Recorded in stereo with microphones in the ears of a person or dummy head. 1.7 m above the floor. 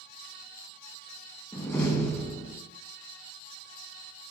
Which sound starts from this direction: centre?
A door slam, at 1.5 s.